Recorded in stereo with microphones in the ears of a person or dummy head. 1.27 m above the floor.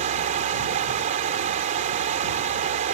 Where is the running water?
50° right (ahead or behind).